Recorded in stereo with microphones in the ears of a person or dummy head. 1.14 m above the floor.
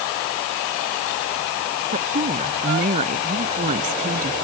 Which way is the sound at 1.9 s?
50° right (ahead or behind).